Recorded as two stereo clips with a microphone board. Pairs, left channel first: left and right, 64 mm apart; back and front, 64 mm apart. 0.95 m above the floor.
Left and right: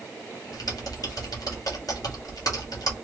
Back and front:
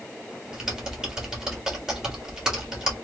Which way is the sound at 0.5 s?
80° left.